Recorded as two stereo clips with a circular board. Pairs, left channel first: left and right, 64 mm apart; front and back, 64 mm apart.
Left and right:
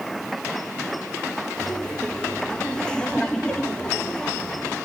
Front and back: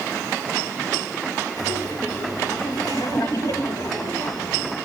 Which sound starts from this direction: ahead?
Laughter, at 1.6 s.